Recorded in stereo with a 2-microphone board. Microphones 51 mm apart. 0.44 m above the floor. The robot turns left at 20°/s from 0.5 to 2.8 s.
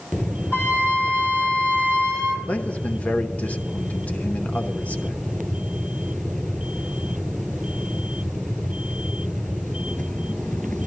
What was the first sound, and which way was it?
A flute, 50° left.